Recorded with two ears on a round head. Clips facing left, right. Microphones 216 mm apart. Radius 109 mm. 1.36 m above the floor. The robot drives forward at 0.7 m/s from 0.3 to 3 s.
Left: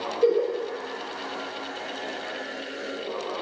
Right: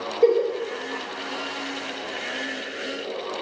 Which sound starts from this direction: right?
A giggle, at 0.2 s.